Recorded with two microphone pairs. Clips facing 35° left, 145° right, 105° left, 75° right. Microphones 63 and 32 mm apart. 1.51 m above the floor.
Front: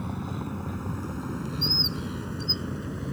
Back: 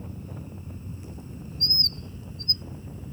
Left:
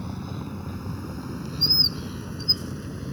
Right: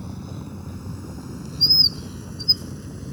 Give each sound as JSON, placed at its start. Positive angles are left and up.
{"t": 0.0, "sound": "a vehicle", "azimuth_deg": 35}
{"t": 1.6, "sound": "a bird", "azimuth_deg": -125}